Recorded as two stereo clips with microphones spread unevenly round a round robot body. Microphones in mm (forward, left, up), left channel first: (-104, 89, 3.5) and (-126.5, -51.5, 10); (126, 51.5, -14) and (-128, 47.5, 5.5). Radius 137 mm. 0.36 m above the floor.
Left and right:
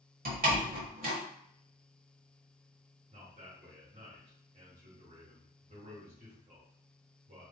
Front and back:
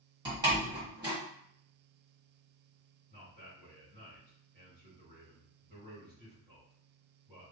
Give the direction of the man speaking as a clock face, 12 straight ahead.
4 o'clock.